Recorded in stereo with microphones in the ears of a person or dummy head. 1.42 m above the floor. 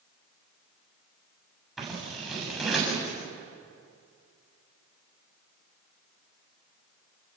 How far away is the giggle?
I don't hear a giggle.